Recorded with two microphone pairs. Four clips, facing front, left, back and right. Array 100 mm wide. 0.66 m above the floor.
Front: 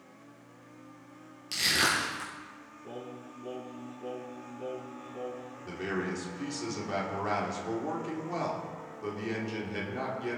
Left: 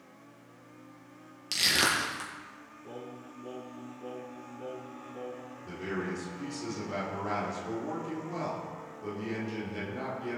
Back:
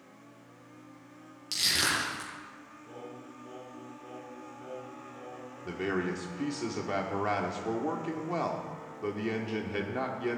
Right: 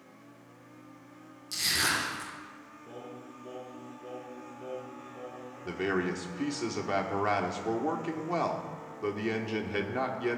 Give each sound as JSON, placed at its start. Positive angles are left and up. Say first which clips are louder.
{"t": 1.5, "sound": "crushing", "louder": "left 2 dB, front 3 dB", "azimuth_deg": 85, "distance_m": 4.5}
{"t": 2.8, "sound": "singing", "louder": "left 1 dB, front 3 dB", "azimuth_deg": 30, "distance_m": 3.0}
{"t": 5.7, "sound": "a man speaking", "louder": "right 5 dB, back 2 dB", "azimuth_deg": -105, "distance_m": 1.9}